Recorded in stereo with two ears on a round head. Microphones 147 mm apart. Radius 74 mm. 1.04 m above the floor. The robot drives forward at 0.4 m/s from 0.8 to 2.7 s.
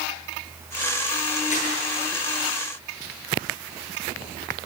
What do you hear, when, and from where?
1.5 s crumpling: 45° left (ahead or behind), 10 m